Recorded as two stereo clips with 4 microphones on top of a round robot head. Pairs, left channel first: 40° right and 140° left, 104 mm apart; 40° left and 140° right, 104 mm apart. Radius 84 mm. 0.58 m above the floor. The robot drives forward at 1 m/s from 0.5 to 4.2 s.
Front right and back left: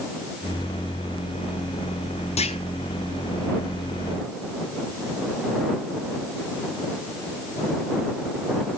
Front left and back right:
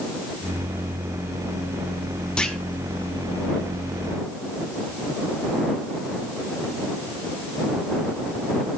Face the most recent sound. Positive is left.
turn(degrees=-135)